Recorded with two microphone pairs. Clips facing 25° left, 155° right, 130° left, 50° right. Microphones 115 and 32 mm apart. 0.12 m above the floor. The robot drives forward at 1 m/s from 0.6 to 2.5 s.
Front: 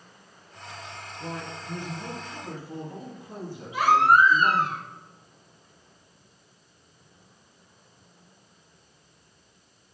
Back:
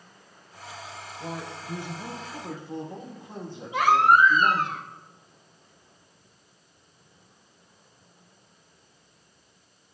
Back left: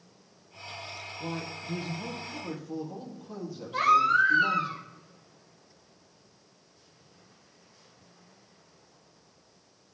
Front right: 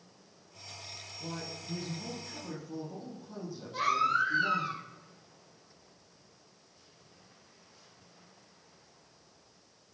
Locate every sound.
1.2 s a man speaking: 120° left, 2.5 m; by 4.7 s 140° left, 3.5 m
3.7 s a baby crying: 165° left, 2.5 m